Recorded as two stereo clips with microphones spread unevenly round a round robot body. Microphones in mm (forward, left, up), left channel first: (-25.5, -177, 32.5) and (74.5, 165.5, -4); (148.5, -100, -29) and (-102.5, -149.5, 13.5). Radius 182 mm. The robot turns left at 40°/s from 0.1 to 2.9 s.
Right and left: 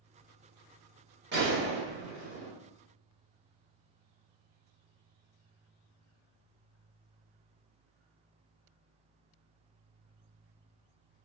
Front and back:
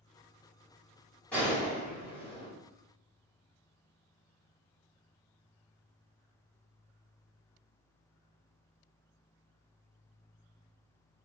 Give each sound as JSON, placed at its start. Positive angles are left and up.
{"t": 1.3, "sound": "a gunshot", "azimuth_deg": 80, "distance_m": 0.8}